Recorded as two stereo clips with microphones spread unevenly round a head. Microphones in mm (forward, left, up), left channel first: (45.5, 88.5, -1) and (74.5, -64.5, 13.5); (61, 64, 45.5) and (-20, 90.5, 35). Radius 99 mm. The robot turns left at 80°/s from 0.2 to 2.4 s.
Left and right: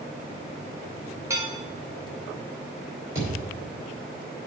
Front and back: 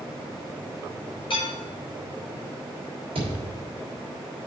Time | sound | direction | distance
1.3 | dishes clattering | 10° right | 4 m
3.1 | a thud | 150° right | 3 m